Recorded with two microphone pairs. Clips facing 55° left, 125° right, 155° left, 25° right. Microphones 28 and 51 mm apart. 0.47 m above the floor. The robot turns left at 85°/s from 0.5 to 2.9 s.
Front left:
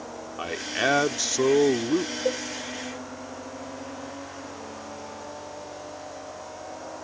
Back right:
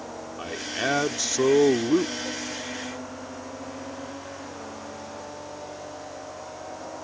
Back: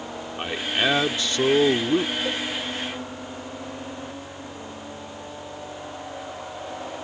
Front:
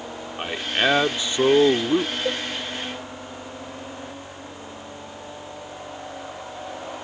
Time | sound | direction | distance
0.4 | a man speaking | 50° left | ?
2.2 | a cowbell | 45° left | ?